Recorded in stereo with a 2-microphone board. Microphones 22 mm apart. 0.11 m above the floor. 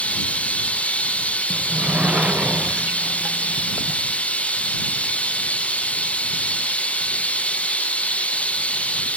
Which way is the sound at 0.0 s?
80° left.